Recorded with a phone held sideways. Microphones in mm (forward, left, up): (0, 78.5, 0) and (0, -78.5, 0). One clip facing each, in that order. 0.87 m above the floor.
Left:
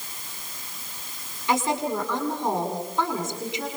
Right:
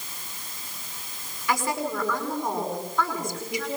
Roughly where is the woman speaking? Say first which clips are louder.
Left 3 dB; left.